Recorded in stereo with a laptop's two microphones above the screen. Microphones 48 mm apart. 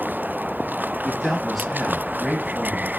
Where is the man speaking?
5° left (ahead or behind), 1.5 m.